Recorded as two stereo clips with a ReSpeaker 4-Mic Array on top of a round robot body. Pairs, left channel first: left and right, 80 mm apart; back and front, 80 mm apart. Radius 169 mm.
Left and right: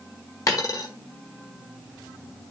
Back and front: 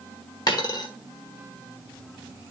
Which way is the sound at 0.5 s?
140° left.